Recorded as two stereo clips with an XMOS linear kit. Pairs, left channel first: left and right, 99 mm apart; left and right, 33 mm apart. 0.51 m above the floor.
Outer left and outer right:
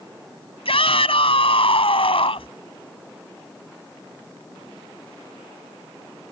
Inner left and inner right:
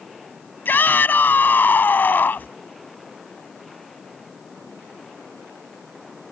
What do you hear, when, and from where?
0.7 s a shout: 75° left (ahead or behind)